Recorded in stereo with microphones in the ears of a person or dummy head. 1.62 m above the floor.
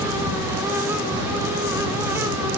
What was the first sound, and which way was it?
Only background noise.